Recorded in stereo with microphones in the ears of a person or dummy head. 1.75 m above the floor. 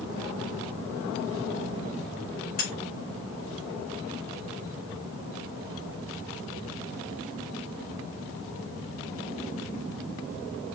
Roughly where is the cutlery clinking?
Left.